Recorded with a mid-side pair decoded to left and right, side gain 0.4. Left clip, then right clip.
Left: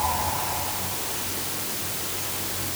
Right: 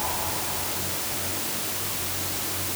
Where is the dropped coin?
I don't hear a dropped coin.